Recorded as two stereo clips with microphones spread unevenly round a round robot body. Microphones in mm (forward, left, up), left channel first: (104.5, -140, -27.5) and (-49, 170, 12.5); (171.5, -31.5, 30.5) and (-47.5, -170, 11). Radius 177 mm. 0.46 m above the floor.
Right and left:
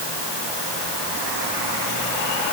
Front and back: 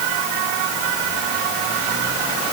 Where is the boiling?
No boiling in this recording.